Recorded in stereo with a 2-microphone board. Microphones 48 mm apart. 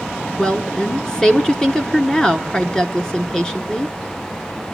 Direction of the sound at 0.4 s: 15° left (ahead or behind).